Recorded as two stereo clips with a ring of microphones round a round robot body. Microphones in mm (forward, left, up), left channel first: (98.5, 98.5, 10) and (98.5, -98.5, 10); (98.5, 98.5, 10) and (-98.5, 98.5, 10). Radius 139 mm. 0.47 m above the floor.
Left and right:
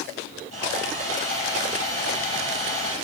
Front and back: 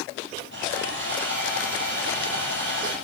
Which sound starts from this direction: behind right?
Sawing, at 0.5 s.